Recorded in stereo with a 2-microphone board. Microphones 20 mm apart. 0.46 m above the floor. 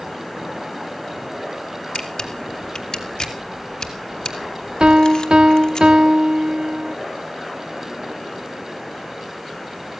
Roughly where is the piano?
Right.